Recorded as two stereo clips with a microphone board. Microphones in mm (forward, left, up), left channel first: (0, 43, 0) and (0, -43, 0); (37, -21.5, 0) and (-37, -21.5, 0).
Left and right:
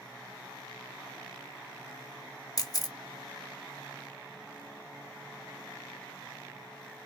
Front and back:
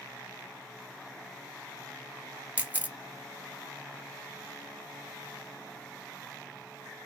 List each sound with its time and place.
2.6 s a camera shutter: 115° left, 0.7 m